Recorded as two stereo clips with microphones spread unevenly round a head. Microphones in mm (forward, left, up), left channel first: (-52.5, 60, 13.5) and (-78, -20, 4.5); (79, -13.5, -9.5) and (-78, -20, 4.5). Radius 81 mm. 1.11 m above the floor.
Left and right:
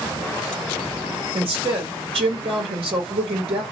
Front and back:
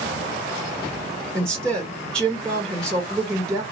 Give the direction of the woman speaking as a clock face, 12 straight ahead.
3 o'clock.